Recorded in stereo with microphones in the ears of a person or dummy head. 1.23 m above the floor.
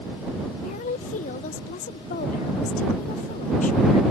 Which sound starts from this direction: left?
A woman speaking, at 0.6 s.